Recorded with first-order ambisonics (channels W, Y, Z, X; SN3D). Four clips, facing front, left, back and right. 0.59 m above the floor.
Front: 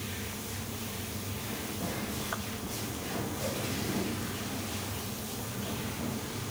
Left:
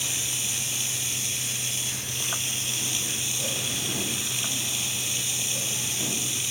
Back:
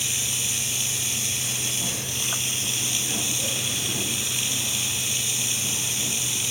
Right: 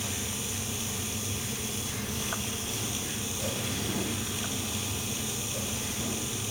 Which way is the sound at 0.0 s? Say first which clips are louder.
Left 6 dB, back 13 dB; 150° left.